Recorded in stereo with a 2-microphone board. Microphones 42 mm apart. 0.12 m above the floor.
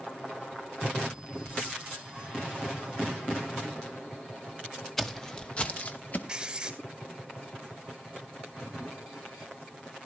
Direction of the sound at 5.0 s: 5° left (ahead or behind).